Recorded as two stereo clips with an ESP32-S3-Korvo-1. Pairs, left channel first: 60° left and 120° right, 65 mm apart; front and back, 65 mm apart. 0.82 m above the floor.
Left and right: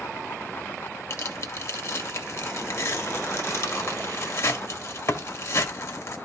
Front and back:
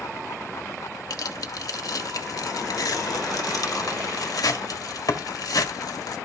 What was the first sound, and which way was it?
Tearing paper, 20° left.